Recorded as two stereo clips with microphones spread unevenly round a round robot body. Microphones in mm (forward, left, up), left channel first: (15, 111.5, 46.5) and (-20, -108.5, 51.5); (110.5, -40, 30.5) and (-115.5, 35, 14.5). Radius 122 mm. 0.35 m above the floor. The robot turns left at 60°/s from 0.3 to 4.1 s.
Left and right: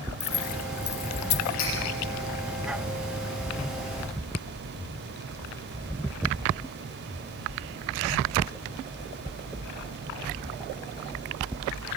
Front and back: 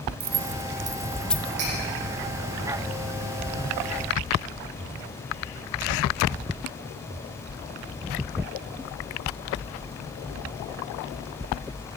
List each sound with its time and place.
0.2 s keys jangling: 130° left, 0.9 m; by 1.6 s 55° left, 0.9 m
1.6 s cutlery clinking: 115° left, 9.5 m; by 1.7 s 110° left, 9.5 m